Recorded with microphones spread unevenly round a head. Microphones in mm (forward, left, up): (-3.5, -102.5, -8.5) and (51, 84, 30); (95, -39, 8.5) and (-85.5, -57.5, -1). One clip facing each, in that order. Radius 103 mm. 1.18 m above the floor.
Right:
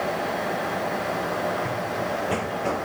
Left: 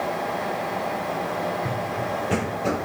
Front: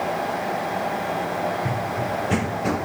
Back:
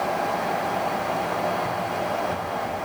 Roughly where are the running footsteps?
Ahead.